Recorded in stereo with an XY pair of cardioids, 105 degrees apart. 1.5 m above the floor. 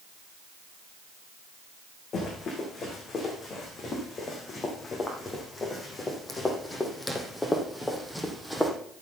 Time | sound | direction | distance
2.1 | running footsteps | 50° left | 6.5 m